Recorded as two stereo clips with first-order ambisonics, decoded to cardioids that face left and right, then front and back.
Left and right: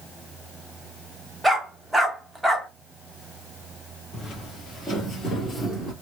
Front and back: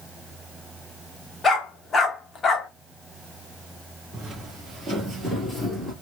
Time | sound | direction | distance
1.4 | a dog barking | 10° right | 0.7 m
4.1 | footsteps | 135° left | 1.5 m